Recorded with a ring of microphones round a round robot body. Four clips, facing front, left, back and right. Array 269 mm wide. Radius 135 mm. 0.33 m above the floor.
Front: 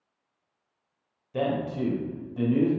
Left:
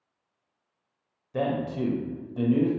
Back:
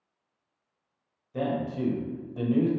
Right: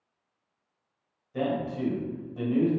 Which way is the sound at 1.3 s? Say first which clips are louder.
Left 1 dB, front 2 dB; 60° left.